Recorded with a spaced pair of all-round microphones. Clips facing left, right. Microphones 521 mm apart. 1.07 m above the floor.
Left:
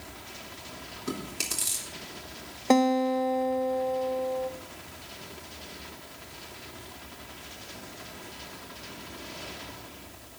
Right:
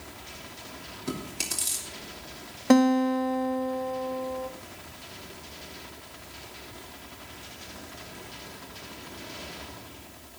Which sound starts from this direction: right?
A guitar, at 2.7 s.